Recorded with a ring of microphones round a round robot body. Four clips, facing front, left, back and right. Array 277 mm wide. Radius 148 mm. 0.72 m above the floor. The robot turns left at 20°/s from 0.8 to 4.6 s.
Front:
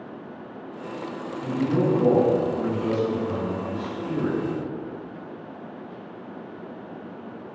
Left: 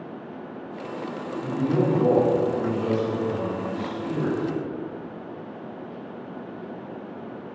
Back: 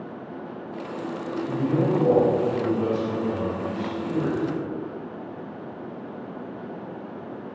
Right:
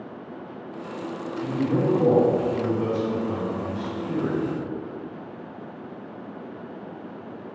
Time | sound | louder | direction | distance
1.4 | a man speaking | even, front 1 dB | 45° right | 1.3 m